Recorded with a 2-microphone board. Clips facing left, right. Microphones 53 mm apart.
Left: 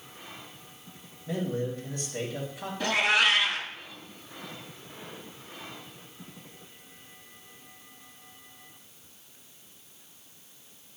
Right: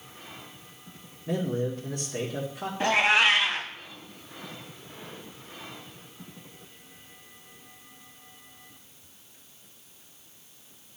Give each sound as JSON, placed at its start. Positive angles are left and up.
{"t": 1.3, "sound": "a man speaking", "side_deg": -70, "distance_m": 2.0}
{"t": 2.8, "sound": "a cat meowing", "side_deg": -35, "distance_m": 0.9}